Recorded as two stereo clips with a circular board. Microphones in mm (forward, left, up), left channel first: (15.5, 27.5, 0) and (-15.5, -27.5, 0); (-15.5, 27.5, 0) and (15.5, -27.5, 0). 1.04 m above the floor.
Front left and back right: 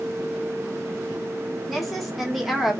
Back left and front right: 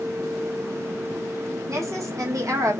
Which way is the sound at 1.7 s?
30° right.